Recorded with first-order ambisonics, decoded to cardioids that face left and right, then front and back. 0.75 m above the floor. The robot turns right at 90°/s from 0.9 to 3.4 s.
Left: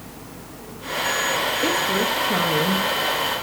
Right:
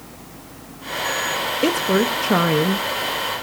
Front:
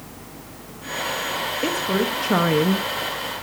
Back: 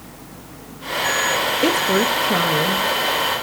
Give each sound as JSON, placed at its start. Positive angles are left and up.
{"t": 1.6, "sound": "a woman speaking", "azimuth_deg": -135, "distance_m": 0.9}